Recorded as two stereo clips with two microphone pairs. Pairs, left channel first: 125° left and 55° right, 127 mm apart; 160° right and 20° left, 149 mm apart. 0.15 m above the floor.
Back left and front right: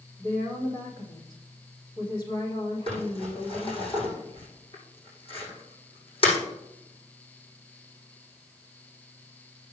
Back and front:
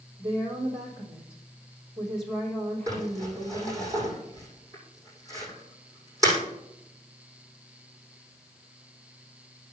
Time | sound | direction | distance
0.2 | a woman speaking | 70° left | 4 m
2.9 | crumpling | 85° left | 7.5 m